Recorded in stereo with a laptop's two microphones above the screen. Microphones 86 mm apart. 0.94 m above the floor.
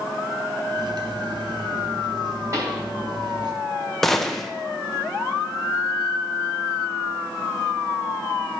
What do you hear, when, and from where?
0.7 s cutlery clinking: 60° right (ahead or behind), 0.8 m
2.5 s a pop: 40° right (ahead or behind), 2.5 m
4.0 s a gunshot: 5° left (ahead or behind), 0.6 m